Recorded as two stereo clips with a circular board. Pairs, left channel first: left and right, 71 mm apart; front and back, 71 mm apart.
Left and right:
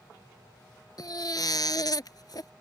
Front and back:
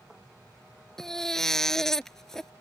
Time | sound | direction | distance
1.0 | a baby crying | 85° left | ?